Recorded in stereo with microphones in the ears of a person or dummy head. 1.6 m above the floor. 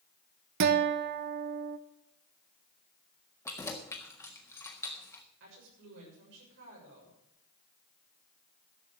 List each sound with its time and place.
0.6 s a guitar: 60° right (ahead or behind), 0.8 m
3.5 s keys jangling: 15° left (ahead or behind), 1.5 m
5.4 s a woman speaking: 70° right (ahead or behind), 7 m